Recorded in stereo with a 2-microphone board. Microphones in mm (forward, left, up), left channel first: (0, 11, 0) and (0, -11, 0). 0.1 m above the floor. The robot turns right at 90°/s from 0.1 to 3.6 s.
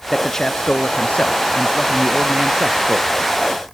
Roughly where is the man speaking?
Ahead.